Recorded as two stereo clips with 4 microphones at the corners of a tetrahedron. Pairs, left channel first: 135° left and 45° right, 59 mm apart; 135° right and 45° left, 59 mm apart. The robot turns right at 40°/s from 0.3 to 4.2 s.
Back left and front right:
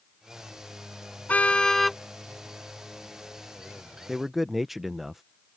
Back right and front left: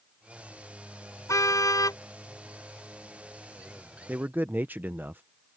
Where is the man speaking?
35° left; by 5.2 s 40° left.